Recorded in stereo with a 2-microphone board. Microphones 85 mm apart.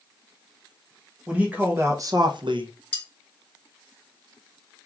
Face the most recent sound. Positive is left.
turn(degrees=15)  # may be behind; listen again after turning